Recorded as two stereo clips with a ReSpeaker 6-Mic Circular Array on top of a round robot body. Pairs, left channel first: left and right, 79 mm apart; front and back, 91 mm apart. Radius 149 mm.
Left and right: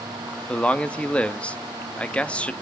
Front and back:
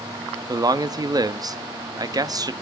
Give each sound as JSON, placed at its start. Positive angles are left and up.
{"t": 0.5, "sound": "a man speaking", "azimuth_deg": 160, "distance_m": 1.0}